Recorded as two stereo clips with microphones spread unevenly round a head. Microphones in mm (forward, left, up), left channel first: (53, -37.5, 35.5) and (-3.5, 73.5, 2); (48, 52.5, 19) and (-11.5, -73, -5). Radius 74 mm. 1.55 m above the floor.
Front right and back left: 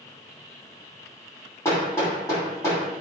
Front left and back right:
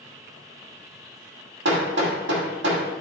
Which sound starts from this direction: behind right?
Hammering, at 1.6 s.